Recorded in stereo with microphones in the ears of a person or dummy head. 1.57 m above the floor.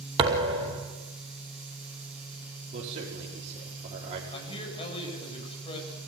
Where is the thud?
30° right (ahead or behind), 2.5 m.